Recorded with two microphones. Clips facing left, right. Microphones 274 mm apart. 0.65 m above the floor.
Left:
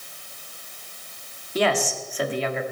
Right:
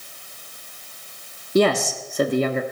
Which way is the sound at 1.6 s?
45° right (ahead or behind).